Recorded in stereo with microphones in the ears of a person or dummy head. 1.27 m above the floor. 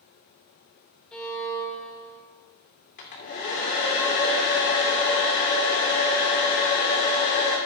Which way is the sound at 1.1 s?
5° left (ahead or behind).